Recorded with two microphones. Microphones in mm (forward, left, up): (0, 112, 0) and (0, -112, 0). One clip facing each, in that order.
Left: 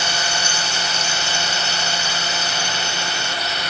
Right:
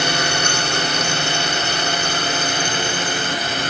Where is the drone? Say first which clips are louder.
Right 6 dB; 60° right (ahead or behind); by 3.7 s 50° right (ahead or behind).